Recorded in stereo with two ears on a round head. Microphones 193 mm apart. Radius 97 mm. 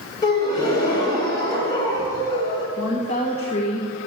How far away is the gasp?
About 3 m.